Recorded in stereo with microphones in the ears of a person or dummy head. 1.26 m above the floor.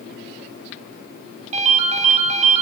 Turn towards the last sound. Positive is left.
turn(degrees=-45)  # may be behind; listen again after turning